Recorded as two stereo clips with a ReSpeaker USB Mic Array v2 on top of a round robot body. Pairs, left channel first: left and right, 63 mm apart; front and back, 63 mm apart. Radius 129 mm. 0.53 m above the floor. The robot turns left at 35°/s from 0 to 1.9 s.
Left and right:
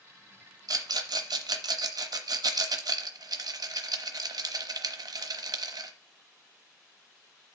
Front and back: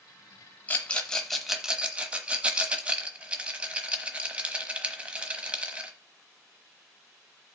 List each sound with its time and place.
0.7 s a rattle: 65° right, 1.1 m; by 5.9 s 110° right, 1.1 m